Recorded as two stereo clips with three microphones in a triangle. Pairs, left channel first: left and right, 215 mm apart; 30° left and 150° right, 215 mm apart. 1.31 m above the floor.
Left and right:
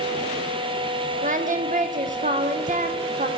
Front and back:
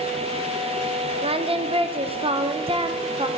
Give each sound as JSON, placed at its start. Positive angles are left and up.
{"t": 1.2, "sound": "singing", "azimuth_deg": -105, "distance_m": 0.5}